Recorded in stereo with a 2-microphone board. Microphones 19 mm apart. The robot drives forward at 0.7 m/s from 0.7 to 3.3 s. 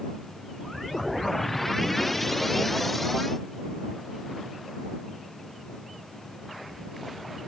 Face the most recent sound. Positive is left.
No sound to turn to.